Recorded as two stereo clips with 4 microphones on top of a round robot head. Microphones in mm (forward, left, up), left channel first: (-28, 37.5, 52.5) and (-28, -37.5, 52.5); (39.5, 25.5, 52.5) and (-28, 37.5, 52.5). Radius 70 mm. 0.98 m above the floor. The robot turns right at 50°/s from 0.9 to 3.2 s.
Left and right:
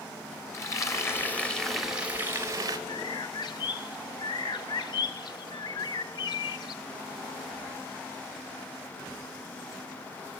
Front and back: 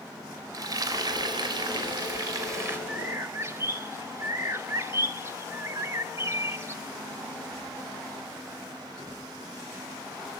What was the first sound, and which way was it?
Frying, 140° left.